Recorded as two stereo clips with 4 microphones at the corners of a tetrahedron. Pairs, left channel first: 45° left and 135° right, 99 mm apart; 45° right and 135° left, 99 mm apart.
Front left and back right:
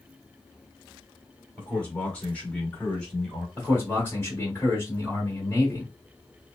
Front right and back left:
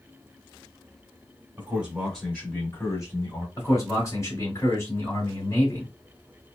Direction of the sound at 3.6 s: 10° right.